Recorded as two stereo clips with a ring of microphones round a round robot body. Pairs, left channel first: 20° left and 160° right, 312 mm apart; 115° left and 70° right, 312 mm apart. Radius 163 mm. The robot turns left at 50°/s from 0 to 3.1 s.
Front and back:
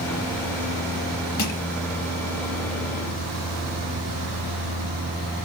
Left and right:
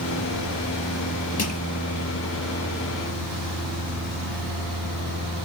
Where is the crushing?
55° left, 4 m; by 1.6 s 45° left, 4 m.